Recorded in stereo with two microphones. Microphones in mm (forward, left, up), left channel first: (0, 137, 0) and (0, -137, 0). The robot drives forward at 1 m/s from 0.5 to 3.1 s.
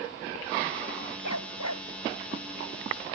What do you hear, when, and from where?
1.2 s a dog barking: 80° left; by 1.9 s 85° left